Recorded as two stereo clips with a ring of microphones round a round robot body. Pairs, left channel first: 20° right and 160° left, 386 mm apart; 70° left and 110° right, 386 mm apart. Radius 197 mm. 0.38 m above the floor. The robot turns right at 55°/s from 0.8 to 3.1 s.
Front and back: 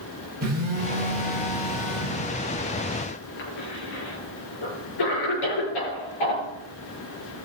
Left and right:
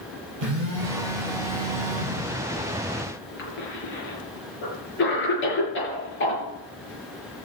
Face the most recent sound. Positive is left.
turn(degrees=5)